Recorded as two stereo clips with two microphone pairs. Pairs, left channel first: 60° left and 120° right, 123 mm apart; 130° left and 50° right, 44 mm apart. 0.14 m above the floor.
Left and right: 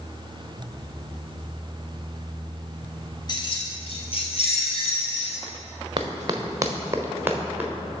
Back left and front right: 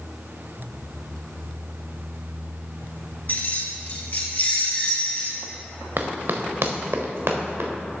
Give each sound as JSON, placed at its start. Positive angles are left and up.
{"t": 3.3, "sound": "keys jangling", "azimuth_deg": 105, "distance_m": 1.3}
{"t": 6.0, "sound": "running footsteps", "azimuth_deg": -65, "distance_m": 0.9}